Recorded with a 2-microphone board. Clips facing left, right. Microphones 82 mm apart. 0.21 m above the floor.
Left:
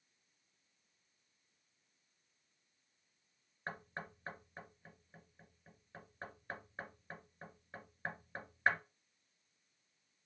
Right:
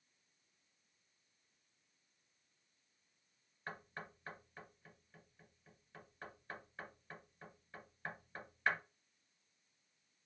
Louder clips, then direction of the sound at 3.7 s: Left 3 dB; 30° left (ahead or behind).